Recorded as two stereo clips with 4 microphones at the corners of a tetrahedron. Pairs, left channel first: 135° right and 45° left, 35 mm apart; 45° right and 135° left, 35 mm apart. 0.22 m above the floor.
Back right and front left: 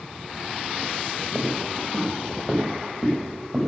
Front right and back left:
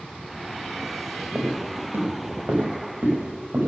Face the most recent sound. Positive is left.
turn(degrees=160)